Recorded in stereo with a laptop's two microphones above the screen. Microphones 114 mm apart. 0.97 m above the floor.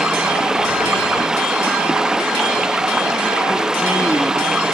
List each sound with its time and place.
0.0 s running water: 5° right (ahead or behind)